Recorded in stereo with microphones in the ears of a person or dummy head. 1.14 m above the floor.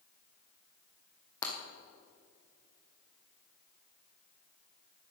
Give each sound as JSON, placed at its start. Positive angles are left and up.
{"t": 1.4, "sound": "breaking glass", "side_deg": 25, "distance_m": 2.5}